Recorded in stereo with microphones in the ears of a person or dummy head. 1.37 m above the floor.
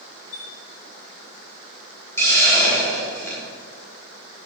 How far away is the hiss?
About 3.5 m.